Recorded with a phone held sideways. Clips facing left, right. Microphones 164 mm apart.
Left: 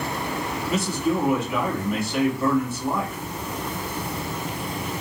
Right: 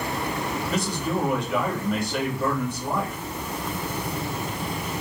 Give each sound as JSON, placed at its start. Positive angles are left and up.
{"t": 0.7, "sound": "a man speaking", "side_deg": 5, "distance_m": 2.0}